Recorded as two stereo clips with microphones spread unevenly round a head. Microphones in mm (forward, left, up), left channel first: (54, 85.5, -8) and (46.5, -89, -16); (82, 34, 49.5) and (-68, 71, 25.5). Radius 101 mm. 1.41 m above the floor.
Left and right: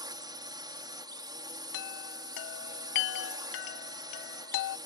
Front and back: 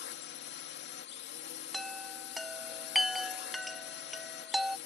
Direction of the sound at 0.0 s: 25° right.